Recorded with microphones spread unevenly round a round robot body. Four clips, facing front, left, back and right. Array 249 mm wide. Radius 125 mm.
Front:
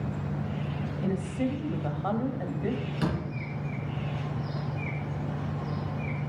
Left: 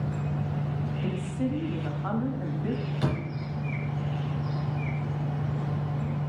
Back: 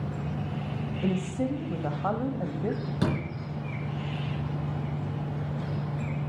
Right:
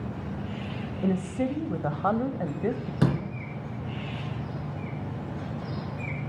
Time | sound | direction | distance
1.0 | a woman speaking | 100° right | 1.3 m
3.0 | a door slam | 110° right | 4.5 m